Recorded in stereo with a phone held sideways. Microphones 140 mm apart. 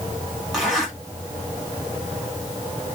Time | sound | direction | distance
0.5 | a zipper | centre (ahead or behind) | 2.5 m